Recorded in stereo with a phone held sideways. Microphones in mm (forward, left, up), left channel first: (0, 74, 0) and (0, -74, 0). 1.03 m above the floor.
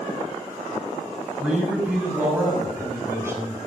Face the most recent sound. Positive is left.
turn(degrees=-20)  # may be behind; listen again after turning